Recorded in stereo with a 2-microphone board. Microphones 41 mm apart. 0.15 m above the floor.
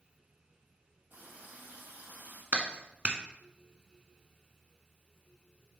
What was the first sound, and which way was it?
A running tap, 50° right (ahead or behind).